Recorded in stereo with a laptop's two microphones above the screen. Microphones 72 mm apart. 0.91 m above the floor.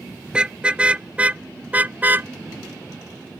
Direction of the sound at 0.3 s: 15° right (ahead or behind).